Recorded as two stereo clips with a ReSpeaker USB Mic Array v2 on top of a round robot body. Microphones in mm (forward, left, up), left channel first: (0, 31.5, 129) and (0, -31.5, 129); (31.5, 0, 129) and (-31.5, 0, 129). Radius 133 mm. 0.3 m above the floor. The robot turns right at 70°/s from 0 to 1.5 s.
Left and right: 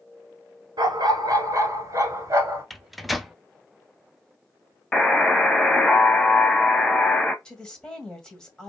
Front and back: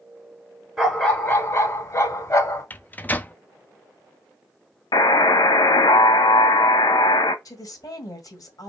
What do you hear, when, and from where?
0.8 s a dog barking: 95° right, 1.3 m; by 2.6 s 40° right, 1.3 m
2.7 s a microwave: straight ahead, 0.7 m
4.9 s a buzzer: 10° left, 0.6 m
7.5 s a woman speaking: 10° left, 2 m